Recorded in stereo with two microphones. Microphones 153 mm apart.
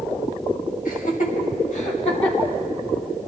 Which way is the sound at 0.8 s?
65° left (ahead or behind).